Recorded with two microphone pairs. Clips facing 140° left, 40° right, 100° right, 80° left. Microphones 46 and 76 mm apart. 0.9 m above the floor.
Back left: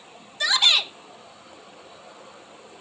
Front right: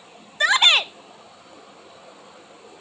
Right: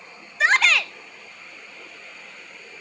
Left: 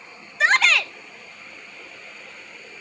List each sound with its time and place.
0.4 s a shout: 15° right, 0.7 m